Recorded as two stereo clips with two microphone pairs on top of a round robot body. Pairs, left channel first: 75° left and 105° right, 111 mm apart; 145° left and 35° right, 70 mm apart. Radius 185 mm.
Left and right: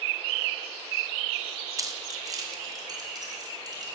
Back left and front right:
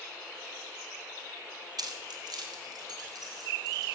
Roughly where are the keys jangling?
Ahead right.